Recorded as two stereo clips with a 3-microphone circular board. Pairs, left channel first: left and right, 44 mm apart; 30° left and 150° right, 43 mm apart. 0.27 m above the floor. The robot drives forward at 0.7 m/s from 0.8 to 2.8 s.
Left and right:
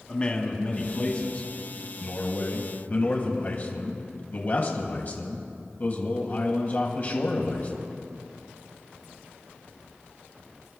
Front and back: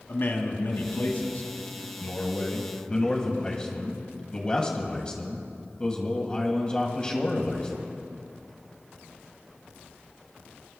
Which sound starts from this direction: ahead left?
A man speaking, at 0.1 s.